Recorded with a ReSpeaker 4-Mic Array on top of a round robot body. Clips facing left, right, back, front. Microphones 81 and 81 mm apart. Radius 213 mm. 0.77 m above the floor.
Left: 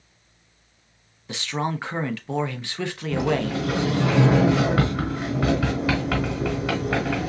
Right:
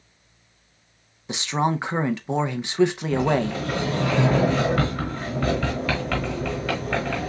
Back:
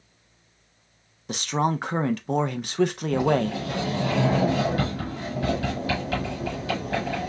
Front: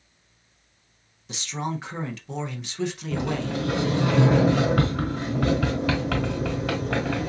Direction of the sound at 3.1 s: 10° left.